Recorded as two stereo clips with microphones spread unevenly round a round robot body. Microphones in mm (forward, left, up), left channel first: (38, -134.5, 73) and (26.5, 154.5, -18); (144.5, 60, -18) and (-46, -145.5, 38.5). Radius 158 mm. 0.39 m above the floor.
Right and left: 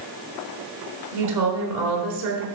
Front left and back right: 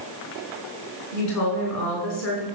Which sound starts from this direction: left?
A woman speaking, at 1.1 s.